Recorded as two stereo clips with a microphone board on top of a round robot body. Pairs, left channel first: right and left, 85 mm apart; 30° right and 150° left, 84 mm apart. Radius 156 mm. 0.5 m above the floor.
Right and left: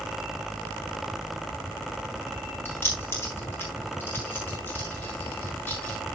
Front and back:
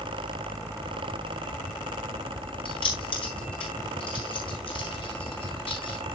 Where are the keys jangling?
30° right, 6.5 m; by 6.0 s 20° right, 8.5 m.